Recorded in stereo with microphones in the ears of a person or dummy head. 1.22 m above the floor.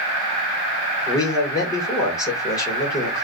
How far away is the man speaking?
About 1.3 m.